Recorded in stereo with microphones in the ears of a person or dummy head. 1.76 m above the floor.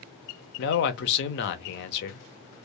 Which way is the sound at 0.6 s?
60° left (ahead or behind).